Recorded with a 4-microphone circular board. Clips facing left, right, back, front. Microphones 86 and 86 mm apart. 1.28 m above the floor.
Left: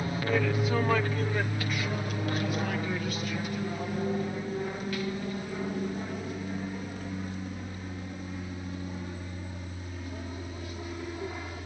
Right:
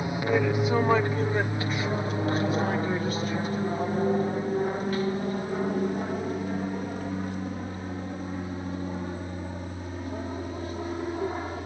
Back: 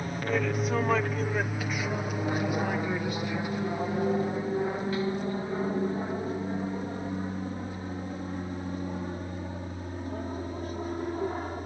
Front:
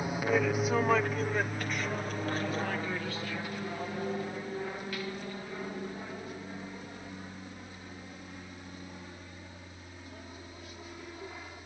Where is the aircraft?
60° right; by 11.7 s 140° right.